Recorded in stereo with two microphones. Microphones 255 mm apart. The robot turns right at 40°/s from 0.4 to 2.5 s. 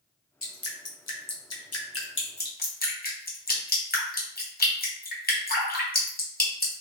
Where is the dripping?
60° left (ahead or behind), 0.6 m; by 6.8 s 35° left (ahead or behind), 0.6 m.